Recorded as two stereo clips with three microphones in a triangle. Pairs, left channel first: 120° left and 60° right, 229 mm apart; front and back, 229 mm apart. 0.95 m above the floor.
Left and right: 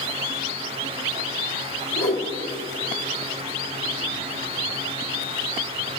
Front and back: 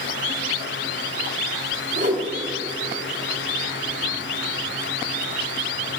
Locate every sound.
1.9 s a whoosh: 140° left, 3 m